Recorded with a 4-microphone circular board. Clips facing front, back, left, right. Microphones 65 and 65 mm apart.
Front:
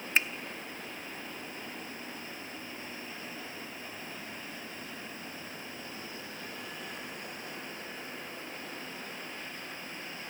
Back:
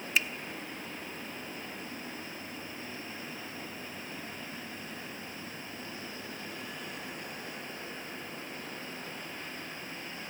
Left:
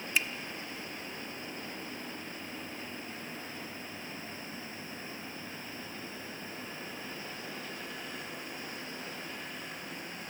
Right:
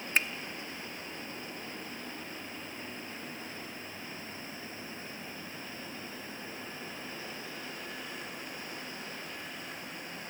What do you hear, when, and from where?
0.1 s a finger snap: 50° right, 0.7 m